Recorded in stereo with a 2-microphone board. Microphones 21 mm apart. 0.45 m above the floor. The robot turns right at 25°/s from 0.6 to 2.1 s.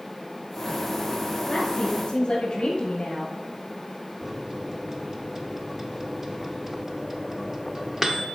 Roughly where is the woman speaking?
Left.